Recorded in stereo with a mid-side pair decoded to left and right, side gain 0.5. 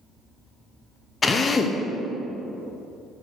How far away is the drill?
About 0.7 m.